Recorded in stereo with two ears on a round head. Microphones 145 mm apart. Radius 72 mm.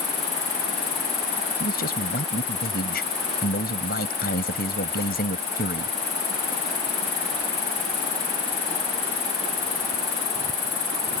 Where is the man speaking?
60° left (ahead or behind).